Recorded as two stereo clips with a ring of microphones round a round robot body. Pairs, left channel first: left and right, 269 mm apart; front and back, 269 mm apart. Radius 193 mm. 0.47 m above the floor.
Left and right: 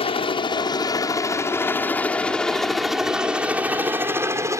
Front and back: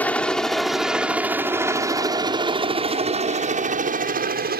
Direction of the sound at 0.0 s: 75° left.